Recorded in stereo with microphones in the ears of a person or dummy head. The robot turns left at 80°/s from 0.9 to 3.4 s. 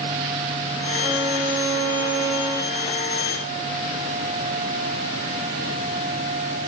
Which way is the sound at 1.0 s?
15° right.